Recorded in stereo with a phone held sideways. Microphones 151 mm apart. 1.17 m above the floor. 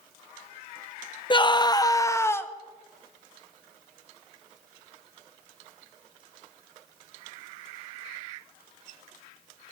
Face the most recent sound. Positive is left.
turn(degrees=15)  # may be behind; listen again after turning